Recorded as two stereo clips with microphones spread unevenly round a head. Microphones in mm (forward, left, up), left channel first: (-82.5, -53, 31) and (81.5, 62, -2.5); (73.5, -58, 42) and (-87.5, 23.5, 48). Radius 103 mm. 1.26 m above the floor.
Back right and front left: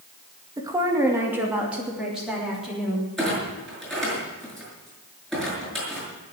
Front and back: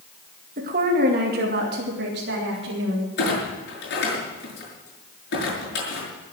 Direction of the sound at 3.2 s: 60° right.